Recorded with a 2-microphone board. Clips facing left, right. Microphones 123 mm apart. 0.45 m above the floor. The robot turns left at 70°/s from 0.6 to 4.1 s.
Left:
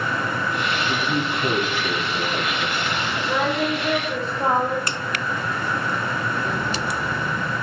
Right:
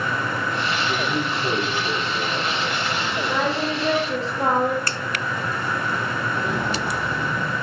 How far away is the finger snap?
About 0.6 m.